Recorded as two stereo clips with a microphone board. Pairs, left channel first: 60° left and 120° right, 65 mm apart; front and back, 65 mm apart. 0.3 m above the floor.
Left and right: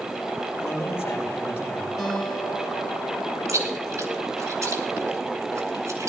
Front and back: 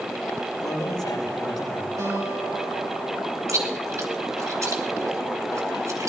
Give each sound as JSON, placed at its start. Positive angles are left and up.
{"t": 0.6, "sound": "a man speaking", "azimuth_deg": 10, "distance_m": 7.0}
{"t": 2.0, "sound": "a guitar", "azimuth_deg": 155, "distance_m": 4.5}
{"t": 3.5, "sound": "chewing", "azimuth_deg": -150, "distance_m": 3.5}